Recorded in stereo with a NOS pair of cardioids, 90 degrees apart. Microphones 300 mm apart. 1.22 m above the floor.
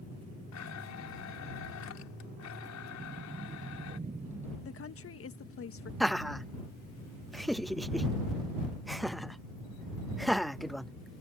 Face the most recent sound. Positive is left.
turn(degrees=0)